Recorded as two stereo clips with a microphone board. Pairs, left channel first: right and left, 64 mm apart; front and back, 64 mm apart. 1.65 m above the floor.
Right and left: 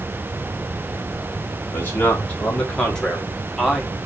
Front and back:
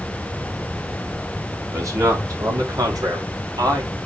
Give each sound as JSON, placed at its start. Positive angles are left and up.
{"t": 1.7, "sound": "a man speaking", "azimuth_deg": -145, "distance_m": 3.5}